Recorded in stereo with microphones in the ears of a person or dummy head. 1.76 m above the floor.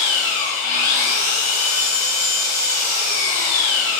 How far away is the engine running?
About 1.1 m.